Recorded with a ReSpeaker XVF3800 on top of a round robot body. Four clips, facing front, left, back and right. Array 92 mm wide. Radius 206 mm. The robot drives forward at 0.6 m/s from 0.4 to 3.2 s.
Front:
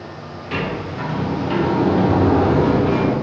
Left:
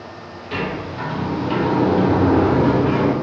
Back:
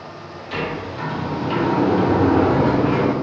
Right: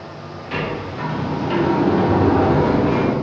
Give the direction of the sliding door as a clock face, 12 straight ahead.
1 o'clock.